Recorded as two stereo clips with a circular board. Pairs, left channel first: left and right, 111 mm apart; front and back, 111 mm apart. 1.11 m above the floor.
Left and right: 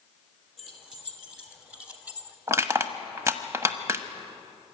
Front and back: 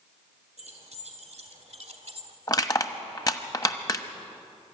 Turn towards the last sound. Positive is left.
turn(degrees=-40)